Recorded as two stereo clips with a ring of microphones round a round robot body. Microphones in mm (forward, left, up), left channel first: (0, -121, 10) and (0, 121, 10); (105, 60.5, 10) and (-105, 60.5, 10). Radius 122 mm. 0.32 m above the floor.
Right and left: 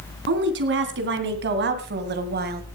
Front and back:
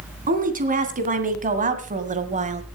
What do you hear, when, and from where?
0.3 s a woman speaking: 130° left, 3 m; by 2.8 s 135° left, 1.4 m